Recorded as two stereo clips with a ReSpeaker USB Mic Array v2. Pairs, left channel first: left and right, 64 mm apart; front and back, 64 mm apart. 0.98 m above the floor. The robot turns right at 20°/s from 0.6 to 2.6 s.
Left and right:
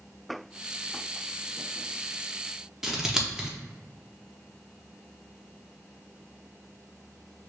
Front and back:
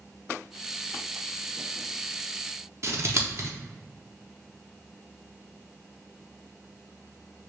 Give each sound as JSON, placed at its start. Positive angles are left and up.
{"t": 2.8, "sound": "scissors", "azimuth_deg": -170, "distance_m": 0.7}